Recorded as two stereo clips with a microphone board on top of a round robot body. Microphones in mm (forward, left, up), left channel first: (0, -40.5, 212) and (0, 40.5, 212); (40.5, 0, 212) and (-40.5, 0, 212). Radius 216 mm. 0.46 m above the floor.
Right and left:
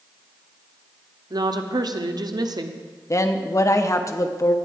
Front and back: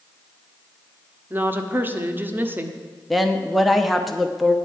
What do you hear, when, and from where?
1.3 s a woman speaking: 115° left, 1.3 m
3.1 s a woman speaking: 90° right, 1.0 m